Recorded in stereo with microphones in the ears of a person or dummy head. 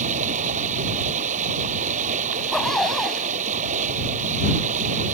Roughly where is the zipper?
Centre.